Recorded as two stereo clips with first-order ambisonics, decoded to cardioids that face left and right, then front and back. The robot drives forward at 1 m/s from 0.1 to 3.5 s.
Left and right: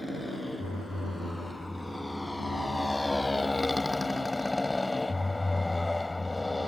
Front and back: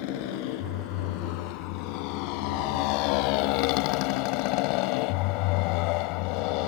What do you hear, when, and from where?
0.0 s a motorcycle: 5° left; by 6.7 s 10° left